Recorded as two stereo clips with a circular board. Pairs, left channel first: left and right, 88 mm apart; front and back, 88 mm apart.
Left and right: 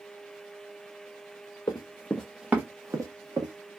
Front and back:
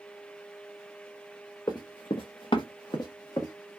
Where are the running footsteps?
45° left, 0.8 m; by 3.5 s 50° right, 1.5 m.